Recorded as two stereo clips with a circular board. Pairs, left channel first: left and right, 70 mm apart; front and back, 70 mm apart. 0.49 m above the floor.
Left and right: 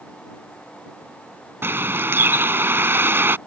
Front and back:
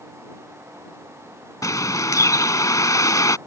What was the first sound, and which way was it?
A bird, 35° right.